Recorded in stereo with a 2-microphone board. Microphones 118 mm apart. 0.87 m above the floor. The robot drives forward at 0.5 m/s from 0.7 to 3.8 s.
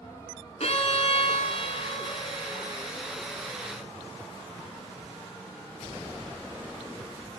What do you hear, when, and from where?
0.6 s a violin: 65° left (ahead or behind), 2 m; by 3.7 s 40° left (ahead or behind), 3 m